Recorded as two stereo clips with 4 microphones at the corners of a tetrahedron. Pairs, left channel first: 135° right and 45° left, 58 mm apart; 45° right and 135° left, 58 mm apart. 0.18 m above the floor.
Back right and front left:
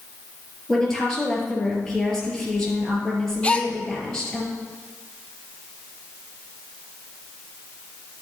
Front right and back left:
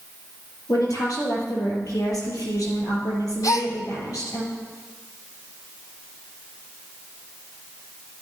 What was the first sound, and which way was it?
A woman speaking, 55° right.